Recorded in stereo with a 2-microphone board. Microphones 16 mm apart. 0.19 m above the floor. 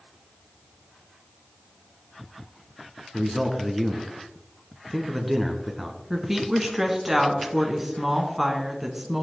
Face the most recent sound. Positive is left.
turn(degrees=-10)  # may be behind; listen again after turning